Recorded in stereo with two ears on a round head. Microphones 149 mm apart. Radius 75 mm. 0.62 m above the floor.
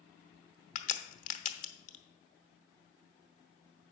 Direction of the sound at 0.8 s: 45° left (ahead or behind).